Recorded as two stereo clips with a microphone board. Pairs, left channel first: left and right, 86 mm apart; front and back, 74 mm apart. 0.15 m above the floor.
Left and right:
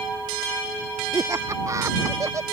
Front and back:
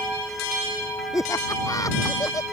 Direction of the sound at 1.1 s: 40° right.